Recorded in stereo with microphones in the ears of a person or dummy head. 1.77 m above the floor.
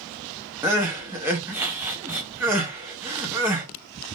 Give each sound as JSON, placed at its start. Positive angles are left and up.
{"t": 0.6, "sound": "crying", "side_deg": -10, "distance_m": 0.7}